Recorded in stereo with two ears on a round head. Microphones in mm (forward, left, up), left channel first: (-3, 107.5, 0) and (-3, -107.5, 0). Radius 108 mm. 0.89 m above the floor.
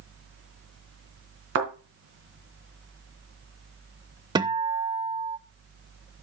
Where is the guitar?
15° right (ahead or behind), 0.6 m.